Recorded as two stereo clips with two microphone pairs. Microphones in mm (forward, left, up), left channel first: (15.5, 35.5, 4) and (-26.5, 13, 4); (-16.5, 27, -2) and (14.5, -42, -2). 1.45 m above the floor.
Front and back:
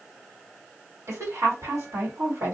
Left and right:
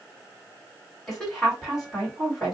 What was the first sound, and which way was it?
A woman speaking, 155° right.